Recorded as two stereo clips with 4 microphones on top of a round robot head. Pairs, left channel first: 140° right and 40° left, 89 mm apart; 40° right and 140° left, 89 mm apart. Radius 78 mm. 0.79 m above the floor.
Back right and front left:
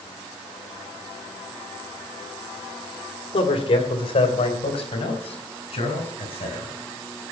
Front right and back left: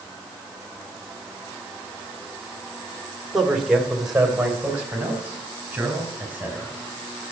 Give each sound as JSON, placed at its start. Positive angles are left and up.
{"t": 3.3, "sound": "a man speaking", "azimuth_deg": -135, "distance_m": 2.5}